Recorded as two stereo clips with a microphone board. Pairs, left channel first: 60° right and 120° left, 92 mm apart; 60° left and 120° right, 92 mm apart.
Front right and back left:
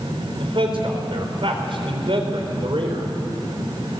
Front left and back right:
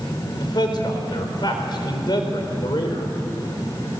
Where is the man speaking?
100° left, 4 m.